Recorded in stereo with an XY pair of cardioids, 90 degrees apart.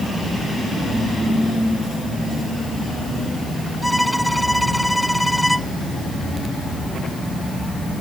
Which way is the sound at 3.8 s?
Straight ahead.